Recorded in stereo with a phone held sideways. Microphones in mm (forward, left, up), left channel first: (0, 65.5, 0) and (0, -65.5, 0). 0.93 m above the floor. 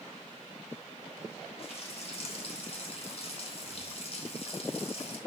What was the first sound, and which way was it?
A running tap, 50° left (ahead or behind).